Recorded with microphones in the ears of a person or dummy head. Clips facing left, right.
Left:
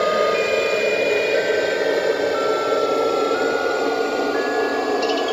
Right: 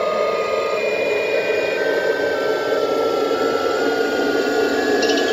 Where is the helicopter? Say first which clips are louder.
Left 1 dB; 5° left (ahead or behind); by 5.3 s 25° right (ahead or behind).